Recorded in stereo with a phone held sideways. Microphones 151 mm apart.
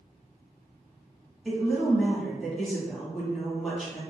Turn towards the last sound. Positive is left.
turn(degrees=5)  # may be behind; listen again after turning